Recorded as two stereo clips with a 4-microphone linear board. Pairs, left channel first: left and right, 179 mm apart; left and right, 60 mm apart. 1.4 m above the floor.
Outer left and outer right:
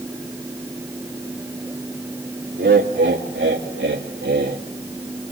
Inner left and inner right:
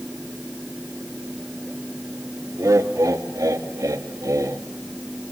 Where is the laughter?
80° right, 3 m; by 4.6 s 65° right (ahead or behind), 2.5 m.